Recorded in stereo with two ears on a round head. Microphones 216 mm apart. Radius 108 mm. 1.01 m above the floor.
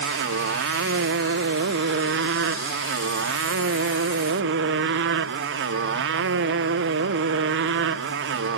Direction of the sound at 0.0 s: 55° right (ahead or behind).